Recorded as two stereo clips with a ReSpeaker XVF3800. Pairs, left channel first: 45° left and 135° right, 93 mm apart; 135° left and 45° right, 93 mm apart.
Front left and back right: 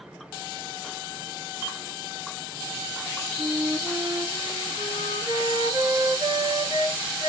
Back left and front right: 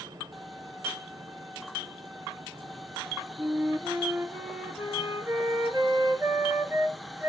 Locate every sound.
3.4 s a flute: 105° right, 3 m